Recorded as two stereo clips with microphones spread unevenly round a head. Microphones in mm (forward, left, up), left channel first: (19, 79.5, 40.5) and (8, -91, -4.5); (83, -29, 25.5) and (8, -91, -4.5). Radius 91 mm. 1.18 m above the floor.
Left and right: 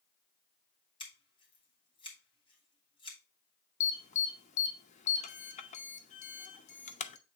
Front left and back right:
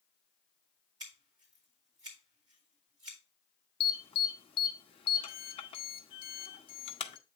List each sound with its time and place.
1.0 s scissors: 150° left, 2 m
3.8 s an alarm: 45° left, 0.7 m